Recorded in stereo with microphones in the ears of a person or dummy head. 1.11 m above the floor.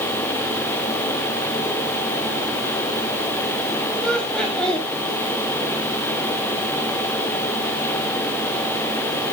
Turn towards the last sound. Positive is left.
turn(degrees=0)  # may be behind; listen again after turning